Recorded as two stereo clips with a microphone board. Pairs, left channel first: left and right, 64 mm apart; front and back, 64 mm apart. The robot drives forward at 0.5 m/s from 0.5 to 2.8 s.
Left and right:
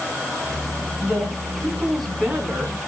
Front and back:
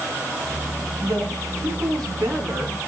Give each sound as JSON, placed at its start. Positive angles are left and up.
{"t": 1.0, "sound": "a woman speaking", "azimuth_deg": -175, "distance_m": 4.5}